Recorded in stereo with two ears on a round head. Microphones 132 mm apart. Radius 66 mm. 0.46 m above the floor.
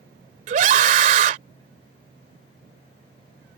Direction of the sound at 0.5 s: 50° right (ahead or behind).